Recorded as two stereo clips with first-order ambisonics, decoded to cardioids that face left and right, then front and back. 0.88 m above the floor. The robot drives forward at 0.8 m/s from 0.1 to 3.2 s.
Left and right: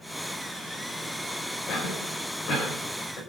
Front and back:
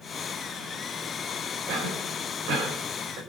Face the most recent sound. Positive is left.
turn(degrees=150)